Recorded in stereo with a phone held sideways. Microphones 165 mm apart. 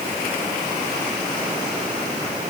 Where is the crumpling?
I don't hear crumpling.